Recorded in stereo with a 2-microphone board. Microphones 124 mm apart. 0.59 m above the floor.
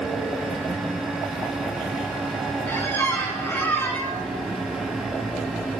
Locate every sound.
2.7 s a squeak: 15° left (ahead or behind), 3 m